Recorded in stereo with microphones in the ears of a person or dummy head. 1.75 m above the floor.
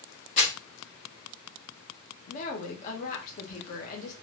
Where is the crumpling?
40° left (ahead or behind), 1.4 m.